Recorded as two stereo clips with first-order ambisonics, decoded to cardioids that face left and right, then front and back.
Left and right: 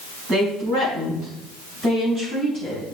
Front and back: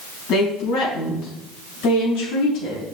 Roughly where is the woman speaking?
Ahead right.